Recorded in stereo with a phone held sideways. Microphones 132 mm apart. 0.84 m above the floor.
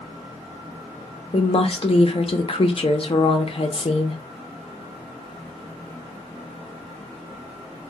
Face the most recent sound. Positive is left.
turn(degrees=45)  # may be behind; listen again after turning